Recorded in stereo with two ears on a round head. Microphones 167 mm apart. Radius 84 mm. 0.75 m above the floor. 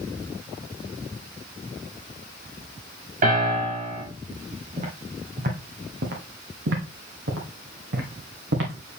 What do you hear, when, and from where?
3.2 s a piano: 45° right (ahead or behind), 5.5 m
4.8 s footsteps: 35° right (ahead or behind), 1.9 m; by 9.0 s 70° right (ahead or behind), 2.5 m